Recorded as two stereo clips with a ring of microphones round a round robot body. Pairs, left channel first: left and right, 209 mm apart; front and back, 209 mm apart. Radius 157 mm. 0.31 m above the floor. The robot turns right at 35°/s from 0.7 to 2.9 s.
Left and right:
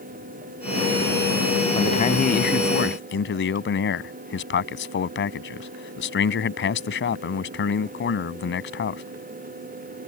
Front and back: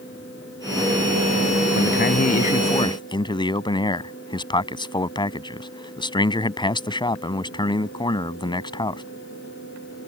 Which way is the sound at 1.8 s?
25° left.